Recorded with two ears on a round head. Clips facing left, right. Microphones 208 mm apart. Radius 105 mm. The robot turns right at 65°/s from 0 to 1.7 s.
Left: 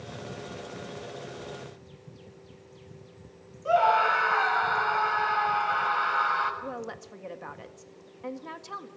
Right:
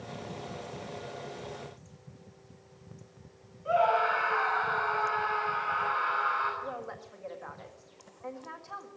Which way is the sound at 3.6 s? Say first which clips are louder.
Left 2 dB; 60° left (ahead or behind).